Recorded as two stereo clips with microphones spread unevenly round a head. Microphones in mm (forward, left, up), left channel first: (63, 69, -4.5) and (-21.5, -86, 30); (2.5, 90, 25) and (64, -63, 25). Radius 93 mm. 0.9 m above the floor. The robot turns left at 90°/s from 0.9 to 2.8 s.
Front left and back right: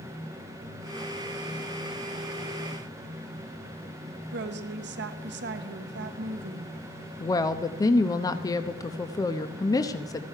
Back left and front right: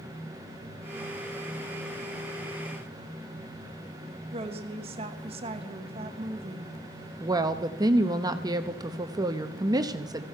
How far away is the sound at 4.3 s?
About 1.2 m.